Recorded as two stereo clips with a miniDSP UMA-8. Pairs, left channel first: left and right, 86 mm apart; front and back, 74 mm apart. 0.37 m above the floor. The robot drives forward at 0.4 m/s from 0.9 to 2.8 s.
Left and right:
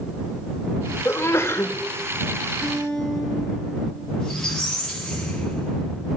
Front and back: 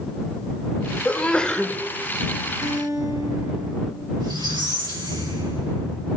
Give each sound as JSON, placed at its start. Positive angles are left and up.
{"t": 1.1, "sound": "a sneeze", "azimuth_deg": 55, "distance_m": 0.9}
{"t": 2.6, "sound": "a guitar", "azimuth_deg": 180, "distance_m": 5.5}
{"t": 4.2, "sound": "a squeak", "azimuth_deg": 170, "distance_m": 3.0}